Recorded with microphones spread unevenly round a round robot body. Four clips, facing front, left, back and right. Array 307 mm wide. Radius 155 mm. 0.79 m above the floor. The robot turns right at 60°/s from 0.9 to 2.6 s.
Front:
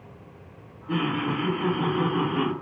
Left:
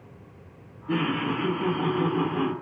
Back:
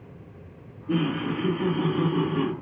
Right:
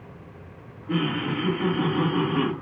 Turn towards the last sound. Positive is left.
turn(degrees=-100)